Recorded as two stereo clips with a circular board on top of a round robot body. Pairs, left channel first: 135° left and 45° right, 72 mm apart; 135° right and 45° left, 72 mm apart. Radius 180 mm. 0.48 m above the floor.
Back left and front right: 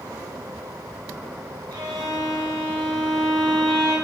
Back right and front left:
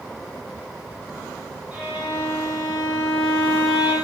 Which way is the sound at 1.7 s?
25° right.